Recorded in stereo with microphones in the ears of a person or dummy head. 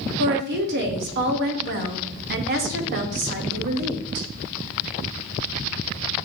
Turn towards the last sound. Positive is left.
turn(degrees=-50)  # may be behind; listen again after turning